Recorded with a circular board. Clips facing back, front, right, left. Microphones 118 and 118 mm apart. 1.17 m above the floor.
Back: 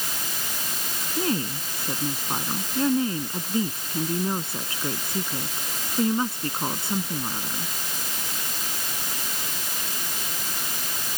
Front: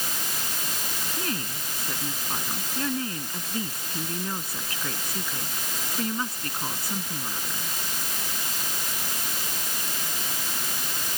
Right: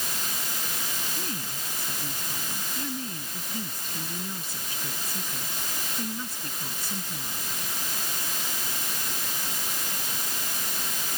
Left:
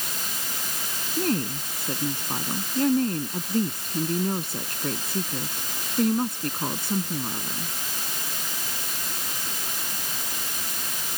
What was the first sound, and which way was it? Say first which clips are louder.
A woman speaking: back 9 dB, left 11 dB; 115° left.